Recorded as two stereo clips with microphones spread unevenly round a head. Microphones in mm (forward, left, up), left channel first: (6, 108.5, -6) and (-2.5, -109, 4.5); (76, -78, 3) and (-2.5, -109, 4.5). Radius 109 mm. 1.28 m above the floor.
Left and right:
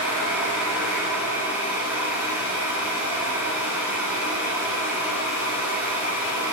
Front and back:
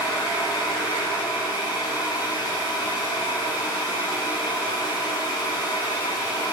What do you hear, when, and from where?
0.0 s a fan: 15° right, 4 m